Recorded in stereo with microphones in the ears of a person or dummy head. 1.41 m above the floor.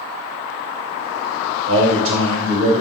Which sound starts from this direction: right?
A man speaking, at 1.7 s.